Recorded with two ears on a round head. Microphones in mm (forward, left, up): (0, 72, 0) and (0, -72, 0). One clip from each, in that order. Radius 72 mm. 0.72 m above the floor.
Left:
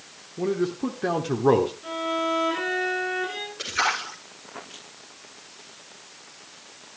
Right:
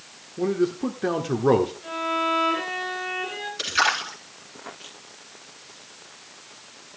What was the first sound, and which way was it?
A man speaking, 5° right (ahead or behind).